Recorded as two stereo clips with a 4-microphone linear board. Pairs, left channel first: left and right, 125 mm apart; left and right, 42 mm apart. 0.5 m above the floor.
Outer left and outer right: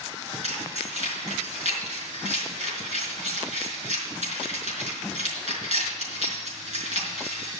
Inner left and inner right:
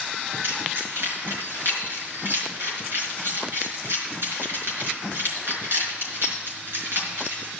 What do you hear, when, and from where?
0.4 s keys jangling: 65° right (ahead or behind), 4.5 m